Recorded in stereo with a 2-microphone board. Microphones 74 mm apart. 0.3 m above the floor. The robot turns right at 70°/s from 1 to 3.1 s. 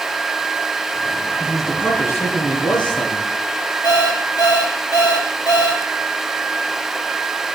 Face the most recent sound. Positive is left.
turn(degrees=60)  # may be behind; listen again after turning